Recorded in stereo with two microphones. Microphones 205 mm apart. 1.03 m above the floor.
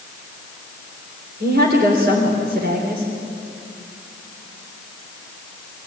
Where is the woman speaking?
50° right (ahead or behind), 3.5 m.